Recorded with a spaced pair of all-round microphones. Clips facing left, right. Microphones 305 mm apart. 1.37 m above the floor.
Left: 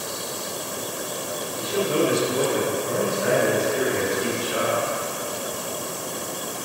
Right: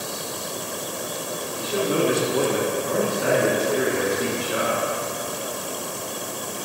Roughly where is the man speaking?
Right.